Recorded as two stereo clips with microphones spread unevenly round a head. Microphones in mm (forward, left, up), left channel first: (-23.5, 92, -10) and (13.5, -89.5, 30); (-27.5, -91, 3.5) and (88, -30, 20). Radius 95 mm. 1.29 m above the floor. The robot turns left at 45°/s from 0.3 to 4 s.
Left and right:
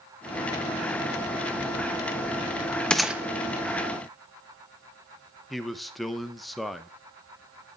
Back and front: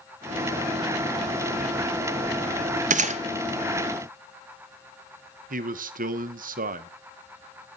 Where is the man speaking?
10° left, 1.1 m.